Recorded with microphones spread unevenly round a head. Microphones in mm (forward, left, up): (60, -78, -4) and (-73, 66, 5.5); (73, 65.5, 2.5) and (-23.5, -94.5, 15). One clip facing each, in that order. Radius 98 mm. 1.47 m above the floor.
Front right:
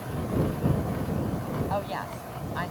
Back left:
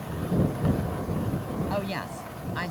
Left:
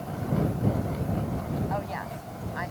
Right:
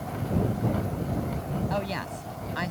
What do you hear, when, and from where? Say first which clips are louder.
1.7 s a woman speaking: back left 1 dB, right 2 dB; 175° right